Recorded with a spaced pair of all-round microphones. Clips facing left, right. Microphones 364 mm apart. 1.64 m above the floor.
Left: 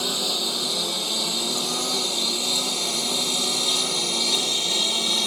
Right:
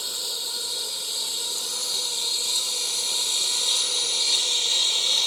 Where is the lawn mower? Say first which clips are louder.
Left 12 dB; 80° left; by 5.3 s 65° left (ahead or behind).